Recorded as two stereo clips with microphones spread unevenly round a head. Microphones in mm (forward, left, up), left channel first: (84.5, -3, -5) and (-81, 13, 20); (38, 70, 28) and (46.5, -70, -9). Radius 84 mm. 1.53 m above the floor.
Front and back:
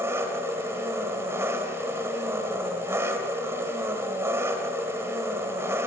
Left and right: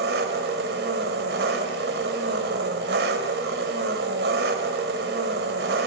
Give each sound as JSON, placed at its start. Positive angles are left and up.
{"t": 0.0, "sound": "an engine running", "azimuth_deg": -115, "distance_m": 2.5}